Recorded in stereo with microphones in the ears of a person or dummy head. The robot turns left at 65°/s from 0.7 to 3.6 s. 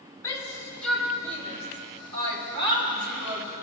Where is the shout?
15° left (ahead or behind), 3.5 m; by 3.5 s 15° right (ahead or behind), 3.5 m.